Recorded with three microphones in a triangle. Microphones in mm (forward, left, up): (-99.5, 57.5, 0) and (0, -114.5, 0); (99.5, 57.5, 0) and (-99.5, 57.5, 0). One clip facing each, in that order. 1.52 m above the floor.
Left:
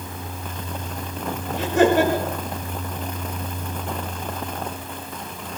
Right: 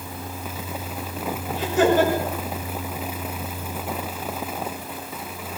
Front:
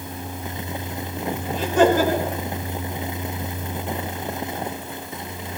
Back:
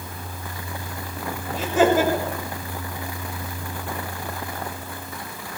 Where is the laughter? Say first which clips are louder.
Left 2 dB, front 1 dB; 95° left, 6.5 m.